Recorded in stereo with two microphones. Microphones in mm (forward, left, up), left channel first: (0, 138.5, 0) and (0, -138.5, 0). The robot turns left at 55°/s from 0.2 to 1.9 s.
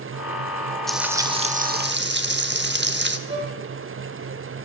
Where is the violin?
20° right (ahead or behind), 4.5 m.